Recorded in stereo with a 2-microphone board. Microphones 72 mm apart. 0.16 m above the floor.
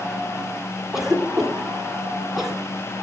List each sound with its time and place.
0.9 s a cough: 5° right (ahead or behind), 2 m